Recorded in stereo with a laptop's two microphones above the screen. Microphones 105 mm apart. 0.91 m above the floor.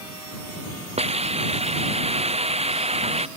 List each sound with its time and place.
1.0 s a hiss: 85° right